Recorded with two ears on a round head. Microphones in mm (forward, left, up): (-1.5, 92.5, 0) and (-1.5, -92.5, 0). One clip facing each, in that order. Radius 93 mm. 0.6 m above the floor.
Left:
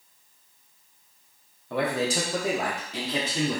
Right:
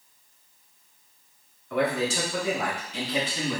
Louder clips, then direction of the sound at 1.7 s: Right 1 dB; 25° left (ahead or behind).